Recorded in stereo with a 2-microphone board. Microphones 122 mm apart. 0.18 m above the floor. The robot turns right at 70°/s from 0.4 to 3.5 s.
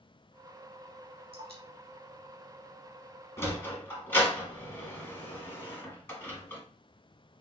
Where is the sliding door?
25° left (ahead or behind), 0.8 m; by 6.6 s 20° left (ahead or behind), 0.8 m.